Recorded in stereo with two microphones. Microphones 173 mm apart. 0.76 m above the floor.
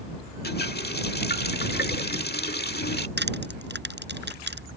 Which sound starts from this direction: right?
Crushing, at 3.2 s.